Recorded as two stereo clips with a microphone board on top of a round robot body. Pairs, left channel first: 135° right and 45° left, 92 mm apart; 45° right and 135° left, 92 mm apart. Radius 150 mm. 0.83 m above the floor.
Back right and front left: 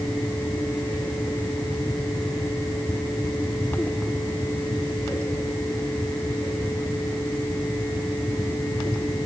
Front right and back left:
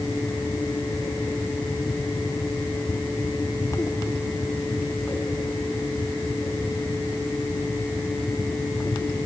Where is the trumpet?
No trumpet in this recording.